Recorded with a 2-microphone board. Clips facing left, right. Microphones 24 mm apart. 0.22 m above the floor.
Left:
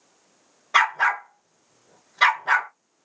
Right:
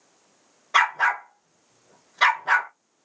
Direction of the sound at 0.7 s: 10° left (ahead or behind).